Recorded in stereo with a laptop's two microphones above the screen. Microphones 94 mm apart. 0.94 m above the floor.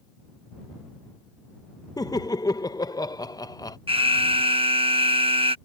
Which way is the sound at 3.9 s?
70° right (ahead or behind).